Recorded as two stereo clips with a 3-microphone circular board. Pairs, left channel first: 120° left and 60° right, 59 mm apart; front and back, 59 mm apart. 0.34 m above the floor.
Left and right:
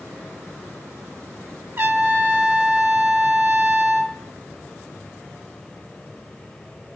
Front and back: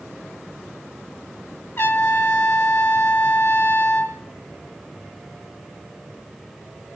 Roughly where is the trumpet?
Ahead right.